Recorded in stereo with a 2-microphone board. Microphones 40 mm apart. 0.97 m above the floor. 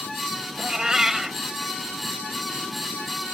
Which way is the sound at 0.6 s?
15° right (ahead or behind).